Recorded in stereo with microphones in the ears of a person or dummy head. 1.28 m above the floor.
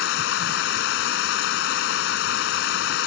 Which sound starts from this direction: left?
Running water, at 0.0 s.